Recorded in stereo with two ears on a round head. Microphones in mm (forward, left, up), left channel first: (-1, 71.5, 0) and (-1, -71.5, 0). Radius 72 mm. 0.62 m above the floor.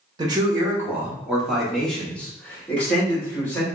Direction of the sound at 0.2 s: 25° right (ahead or behind).